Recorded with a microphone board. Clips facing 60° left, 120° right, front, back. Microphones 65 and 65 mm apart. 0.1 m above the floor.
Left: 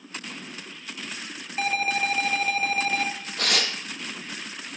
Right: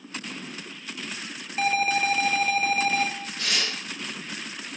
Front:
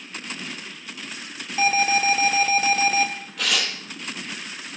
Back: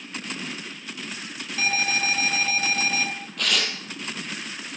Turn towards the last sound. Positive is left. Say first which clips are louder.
# left 4 dB, front 1 dB
turn(degrees=90)